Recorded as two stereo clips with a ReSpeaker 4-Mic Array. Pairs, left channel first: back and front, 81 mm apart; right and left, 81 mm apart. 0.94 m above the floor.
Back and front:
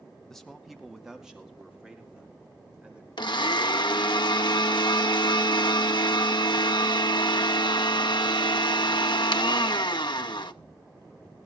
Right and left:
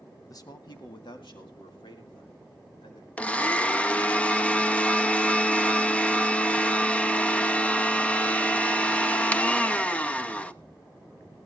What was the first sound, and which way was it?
A man speaking, 100° right.